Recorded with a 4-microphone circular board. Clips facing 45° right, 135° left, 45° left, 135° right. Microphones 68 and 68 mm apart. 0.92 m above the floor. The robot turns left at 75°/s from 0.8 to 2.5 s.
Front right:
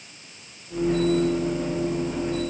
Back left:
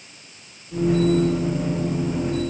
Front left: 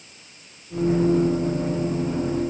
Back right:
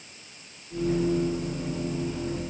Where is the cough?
I don't hear a cough.